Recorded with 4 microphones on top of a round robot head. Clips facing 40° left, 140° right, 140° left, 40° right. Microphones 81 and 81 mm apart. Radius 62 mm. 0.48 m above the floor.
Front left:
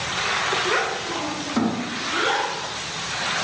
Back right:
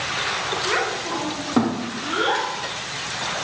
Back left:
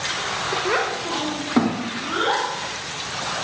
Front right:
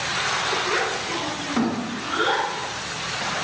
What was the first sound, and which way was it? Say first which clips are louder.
A child speaking: even, back left 2 dB; 125° left.